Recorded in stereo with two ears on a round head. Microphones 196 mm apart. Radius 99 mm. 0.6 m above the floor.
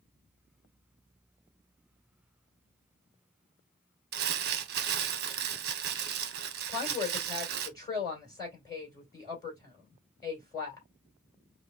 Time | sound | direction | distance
4.1 | crumpling | 45° right (ahead or behind) | 0.8 m
6.7 | a woman speaking | 20° left (ahead or behind) | 3 m